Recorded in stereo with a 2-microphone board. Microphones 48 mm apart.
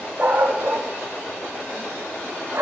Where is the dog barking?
35° right (ahead or behind), 5 m; by 2.6 s 50° right (ahead or behind), 5.5 m.